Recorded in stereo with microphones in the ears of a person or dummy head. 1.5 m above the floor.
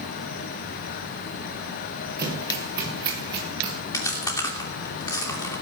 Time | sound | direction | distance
2.2 | running footsteps | 20° right (ahead or behind) | 8.5 m
3.9 | chewing | 20° left (ahead or behind) | 3 m